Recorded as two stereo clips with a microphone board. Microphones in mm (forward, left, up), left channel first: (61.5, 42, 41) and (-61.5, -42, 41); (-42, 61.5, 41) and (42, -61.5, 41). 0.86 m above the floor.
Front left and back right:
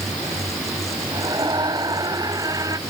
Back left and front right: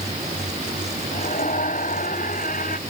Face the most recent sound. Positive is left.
turn(degrees=150)